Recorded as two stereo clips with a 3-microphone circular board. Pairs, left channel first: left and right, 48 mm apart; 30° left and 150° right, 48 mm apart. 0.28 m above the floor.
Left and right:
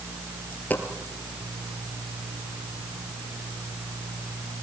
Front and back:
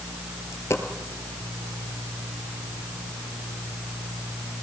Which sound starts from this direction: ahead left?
A dropped coin, at 0.5 s.